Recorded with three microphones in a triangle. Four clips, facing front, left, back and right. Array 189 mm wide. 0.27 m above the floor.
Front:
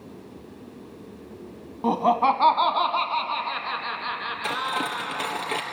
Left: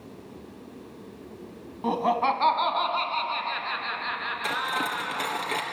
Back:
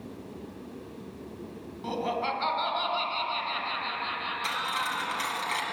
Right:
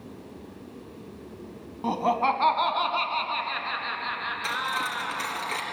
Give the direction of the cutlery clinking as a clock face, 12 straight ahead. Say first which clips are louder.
Left 1 dB, front 5 dB; 11 o'clock.